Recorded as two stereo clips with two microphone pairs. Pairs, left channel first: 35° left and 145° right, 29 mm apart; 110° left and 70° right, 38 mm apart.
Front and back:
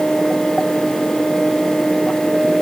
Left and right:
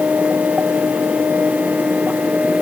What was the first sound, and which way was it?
Only background noise.